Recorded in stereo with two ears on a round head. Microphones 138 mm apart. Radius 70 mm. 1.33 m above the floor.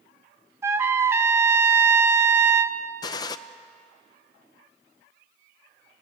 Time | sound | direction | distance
0.6 | a trumpet | 20° right (ahead or behind) | 0.9 m
3.0 | a gunshot | 25° left (ahead or behind) | 0.6 m